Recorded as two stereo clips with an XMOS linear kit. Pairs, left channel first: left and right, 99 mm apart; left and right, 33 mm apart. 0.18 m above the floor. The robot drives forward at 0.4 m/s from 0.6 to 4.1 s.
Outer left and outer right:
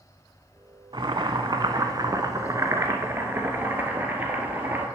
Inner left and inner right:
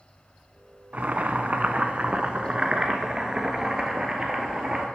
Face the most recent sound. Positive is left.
turn(degrees=-20)  # may be behind; listen again after turning